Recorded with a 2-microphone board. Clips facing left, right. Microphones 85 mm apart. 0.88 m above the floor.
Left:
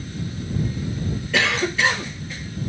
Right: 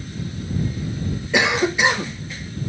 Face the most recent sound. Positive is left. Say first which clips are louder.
# right 3 dB
turn(degrees=-20)  # may be behind; listen again after turning